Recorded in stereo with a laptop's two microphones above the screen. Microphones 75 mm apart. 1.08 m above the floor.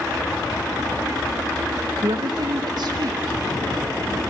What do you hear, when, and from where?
2.0 s a woman speaking: 50° right (ahead or behind), 0.6 m; by 4.2 s 65° right (ahead or behind), 3.5 m